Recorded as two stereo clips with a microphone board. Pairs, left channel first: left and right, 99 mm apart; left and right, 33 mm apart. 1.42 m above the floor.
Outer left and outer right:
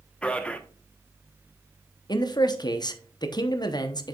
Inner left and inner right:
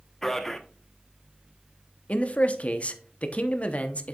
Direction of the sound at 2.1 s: 45° left (ahead or behind).